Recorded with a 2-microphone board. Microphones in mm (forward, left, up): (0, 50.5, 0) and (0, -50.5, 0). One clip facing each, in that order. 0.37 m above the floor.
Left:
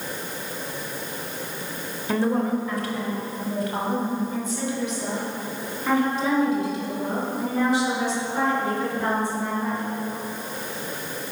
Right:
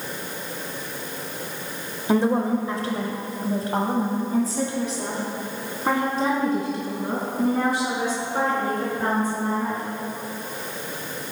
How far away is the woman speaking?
About 1.3 m.